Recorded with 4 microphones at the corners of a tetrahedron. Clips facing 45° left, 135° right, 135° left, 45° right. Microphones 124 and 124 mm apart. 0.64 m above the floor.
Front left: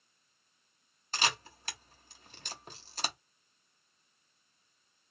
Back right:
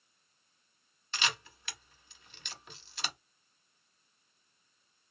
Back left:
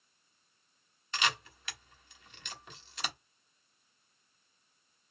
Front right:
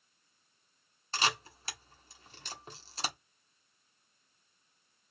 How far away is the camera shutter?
About 1.0 m.